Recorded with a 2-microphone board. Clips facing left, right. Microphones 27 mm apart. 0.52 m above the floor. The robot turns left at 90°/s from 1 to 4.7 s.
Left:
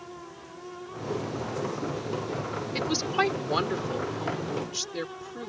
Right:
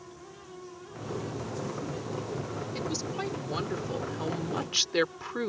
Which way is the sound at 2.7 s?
120° left.